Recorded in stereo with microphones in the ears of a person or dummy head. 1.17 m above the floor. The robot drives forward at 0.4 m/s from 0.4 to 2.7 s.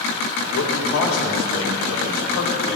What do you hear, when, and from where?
0.5 s a man speaking: 70° left (ahead or behind), 1.9 m; by 2.8 s 50° left (ahead or behind), 2.5 m